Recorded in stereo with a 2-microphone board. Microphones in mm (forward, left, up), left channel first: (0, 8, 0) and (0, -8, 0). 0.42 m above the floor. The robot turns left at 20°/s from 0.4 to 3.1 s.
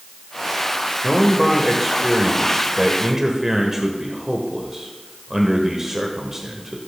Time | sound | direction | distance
1.0 | a man speaking | 5° right | 1.5 m